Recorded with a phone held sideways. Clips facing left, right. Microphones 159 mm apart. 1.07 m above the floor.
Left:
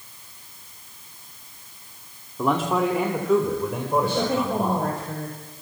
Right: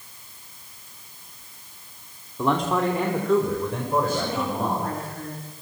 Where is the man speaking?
5° left (ahead or behind), 2.5 m.